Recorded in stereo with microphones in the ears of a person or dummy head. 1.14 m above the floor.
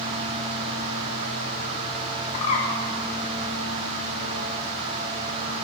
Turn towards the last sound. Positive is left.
turn(degrees=35)  # may be behind; listen again after turning